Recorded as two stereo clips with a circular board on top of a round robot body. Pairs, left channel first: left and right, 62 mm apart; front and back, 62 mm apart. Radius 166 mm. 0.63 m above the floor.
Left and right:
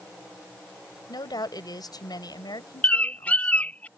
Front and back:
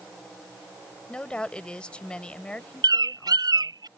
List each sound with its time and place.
1.1 s a woman speaking: 75° left
2.8 s a bird: 160° left